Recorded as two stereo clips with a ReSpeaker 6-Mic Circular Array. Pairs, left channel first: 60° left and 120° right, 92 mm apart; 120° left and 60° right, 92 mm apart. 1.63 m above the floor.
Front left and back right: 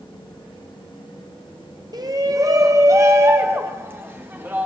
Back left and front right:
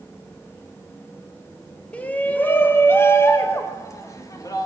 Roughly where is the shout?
Behind.